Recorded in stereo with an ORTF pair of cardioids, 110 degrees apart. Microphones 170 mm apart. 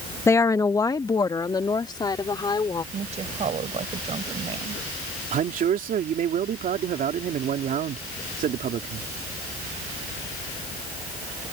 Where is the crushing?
I don't hear crushing.